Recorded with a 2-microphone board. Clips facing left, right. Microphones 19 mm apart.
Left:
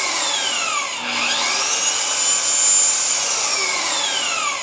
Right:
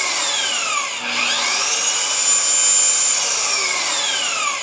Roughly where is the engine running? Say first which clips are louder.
Right 1 dB; centre.